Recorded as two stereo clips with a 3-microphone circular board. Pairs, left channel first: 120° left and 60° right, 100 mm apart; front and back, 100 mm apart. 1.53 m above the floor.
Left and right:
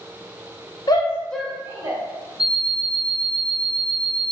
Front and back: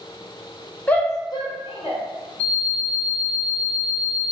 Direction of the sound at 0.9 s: 75° left.